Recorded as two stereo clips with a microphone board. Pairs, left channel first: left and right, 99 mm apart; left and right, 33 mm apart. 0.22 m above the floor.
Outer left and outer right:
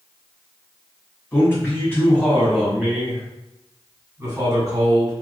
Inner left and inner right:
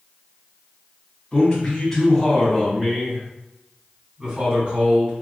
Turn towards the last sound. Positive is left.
turn(degrees=-35)  # may be behind; listen again after turning